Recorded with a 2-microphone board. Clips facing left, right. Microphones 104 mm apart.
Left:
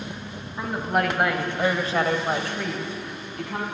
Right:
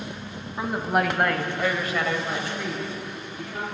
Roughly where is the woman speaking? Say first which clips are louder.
Even; centre.